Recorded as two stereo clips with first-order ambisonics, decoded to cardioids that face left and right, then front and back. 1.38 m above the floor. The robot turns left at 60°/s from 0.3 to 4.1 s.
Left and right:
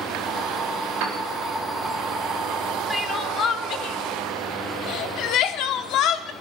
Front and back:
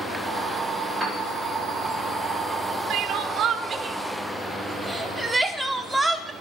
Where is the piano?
100° right, 3.5 m; by 1.2 s 110° right, 3.5 m.